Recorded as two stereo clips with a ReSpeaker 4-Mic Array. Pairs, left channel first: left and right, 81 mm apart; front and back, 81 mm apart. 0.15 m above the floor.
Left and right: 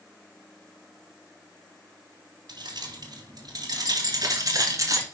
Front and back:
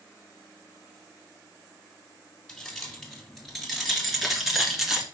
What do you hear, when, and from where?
2.5 s keys jangling: 85° right, 2.5 m; by 5.0 s 95° right, 1.4 m